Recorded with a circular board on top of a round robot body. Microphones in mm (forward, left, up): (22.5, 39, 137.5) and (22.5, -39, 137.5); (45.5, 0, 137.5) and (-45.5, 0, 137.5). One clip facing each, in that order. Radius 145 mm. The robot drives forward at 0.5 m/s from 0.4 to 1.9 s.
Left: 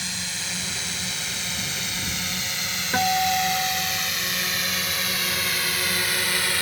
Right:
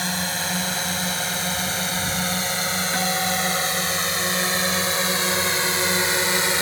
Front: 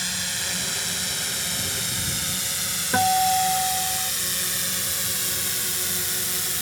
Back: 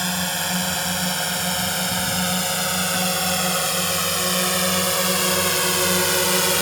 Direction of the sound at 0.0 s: 140° right.